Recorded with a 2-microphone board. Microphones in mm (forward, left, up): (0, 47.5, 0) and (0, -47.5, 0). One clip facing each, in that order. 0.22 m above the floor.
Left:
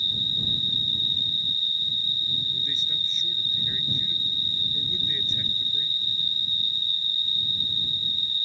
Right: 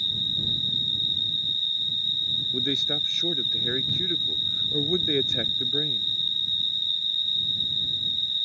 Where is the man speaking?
65° right (ahead or behind).